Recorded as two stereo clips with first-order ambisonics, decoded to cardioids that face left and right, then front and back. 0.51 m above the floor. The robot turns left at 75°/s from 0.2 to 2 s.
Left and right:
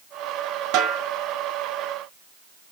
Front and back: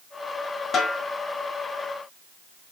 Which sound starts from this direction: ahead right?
A snare drum, at 0.7 s.